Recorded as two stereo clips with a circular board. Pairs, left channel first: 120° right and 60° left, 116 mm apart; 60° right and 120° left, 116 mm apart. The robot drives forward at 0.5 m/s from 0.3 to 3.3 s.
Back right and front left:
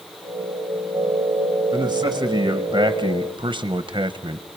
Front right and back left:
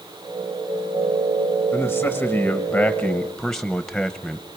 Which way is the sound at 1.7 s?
10° left.